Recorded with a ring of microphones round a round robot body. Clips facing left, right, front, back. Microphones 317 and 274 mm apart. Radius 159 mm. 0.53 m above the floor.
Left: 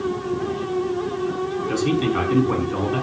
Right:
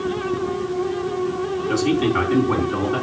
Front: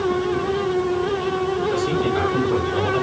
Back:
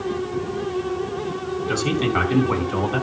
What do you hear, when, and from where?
1.7 s a man speaking: 175° left, 5 m